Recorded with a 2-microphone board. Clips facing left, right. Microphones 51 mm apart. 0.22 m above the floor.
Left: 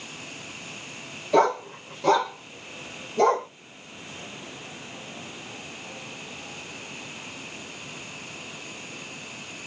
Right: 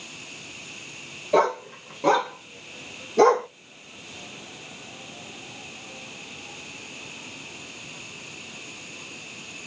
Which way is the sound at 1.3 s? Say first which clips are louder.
Left 1 dB; 10° right (ahead or behind).